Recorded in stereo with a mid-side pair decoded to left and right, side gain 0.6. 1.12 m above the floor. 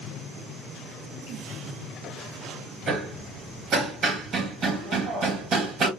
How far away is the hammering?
About 1.5 m.